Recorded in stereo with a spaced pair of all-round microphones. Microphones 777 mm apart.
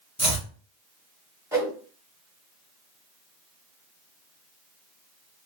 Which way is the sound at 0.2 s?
10° left (ahead or behind).